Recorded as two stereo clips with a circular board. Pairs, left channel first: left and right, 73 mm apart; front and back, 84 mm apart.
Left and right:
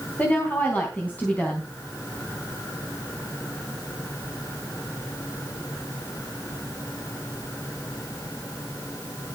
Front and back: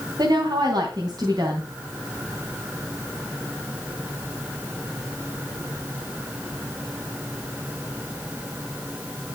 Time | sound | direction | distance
0.2 | a woman speaking | 155° left | 3 m